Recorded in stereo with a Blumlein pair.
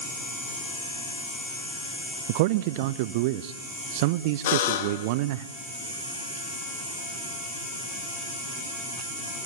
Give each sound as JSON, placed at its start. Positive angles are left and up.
{"t": 2.3, "sound": "a man speaking", "azimuth_deg": -50, "distance_m": 0.6}
{"t": 4.5, "sound": "a buzzer", "azimuth_deg": 55, "distance_m": 1.4}